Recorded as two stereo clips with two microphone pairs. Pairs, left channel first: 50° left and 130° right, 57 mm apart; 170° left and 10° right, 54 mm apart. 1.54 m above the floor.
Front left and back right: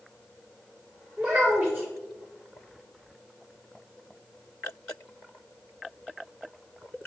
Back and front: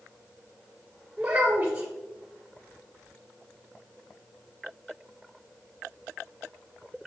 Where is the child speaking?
55° right, 0.6 m.